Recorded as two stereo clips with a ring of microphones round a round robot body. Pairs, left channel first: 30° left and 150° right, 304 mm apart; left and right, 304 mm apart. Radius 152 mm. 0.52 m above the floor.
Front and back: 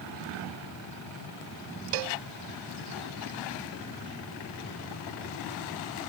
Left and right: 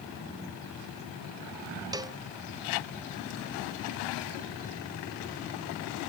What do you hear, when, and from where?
1.9 s a cowbell: 170° right